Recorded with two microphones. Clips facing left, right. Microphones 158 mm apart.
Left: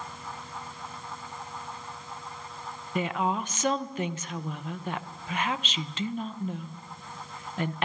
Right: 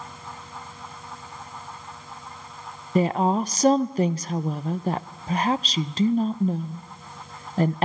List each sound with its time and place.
3.0 s a woman speaking: 35° right (ahead or behind), 0.5 m